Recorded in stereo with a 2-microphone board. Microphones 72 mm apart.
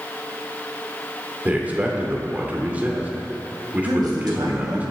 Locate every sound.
1.4 s a man speaking: 20° right (ahead or behind), 2 m
3.9 s a man speaking: 65° right (ahead or behind), 3 m